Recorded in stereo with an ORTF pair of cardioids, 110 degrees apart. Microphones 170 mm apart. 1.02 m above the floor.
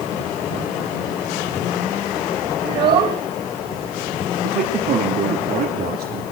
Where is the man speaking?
65° right, 2.5 m.